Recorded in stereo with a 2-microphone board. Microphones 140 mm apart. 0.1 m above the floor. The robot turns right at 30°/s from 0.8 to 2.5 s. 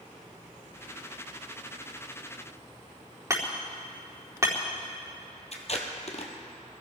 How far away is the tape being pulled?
About 1.9 m.